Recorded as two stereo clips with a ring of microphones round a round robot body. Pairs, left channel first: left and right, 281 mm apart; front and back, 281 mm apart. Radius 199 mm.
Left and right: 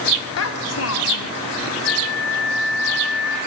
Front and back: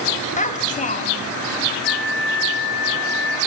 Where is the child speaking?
65° left, 1.9 m.